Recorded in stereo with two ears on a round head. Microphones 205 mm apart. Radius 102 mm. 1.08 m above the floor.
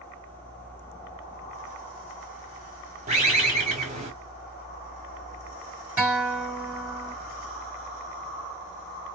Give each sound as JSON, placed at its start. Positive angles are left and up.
{"t": 3.1, "sound": "a bird", "side_deg": -30, "distance_m": 1.6}
{"t": 6.0, "sound": "a guitar", "side_deg": -5, "distance_m": 1.6}